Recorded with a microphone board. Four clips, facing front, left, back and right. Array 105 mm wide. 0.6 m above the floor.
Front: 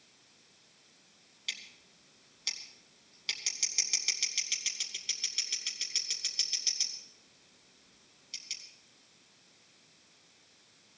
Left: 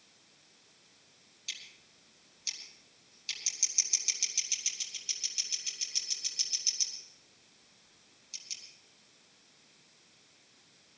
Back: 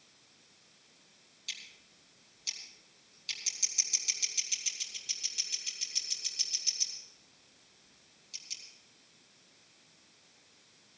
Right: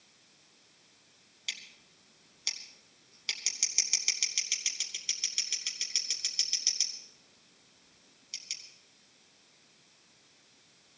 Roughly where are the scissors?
Ahead right.